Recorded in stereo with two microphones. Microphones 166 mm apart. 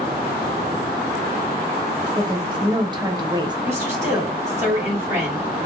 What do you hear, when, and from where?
2.2 s a woman speaking: 25° right (ahead or behind), 0.9 m
3.6 s a woman speaking: 15° right (ahead or behind), 2.5 m